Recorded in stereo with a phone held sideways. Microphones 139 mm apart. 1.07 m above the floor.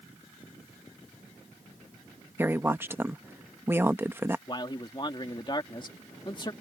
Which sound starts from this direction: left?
A man speaking, at 4.5 s.